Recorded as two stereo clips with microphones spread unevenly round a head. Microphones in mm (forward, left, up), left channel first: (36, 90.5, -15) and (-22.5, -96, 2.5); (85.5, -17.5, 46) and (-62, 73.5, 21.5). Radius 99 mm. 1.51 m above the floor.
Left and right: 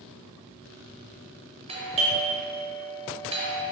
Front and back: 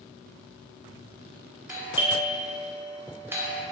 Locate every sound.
1.7 s a doorbell: 155° right, 0.8 m